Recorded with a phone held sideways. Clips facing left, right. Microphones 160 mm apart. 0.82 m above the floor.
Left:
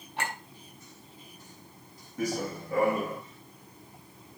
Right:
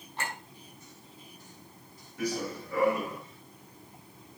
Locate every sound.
0.2 s a clink: 80° left, 4 m
2.2 s running footsteps: 45° left (ahead or behind), 3 m; by 3.2 s 55° left (ahead or behind), 3.5 m